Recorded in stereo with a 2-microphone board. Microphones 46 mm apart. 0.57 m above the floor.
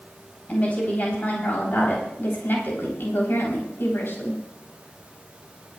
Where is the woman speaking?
30° left (ahead or behind), 3.5 m; by 4.4 s 65° left (ahead or behind), 4 m.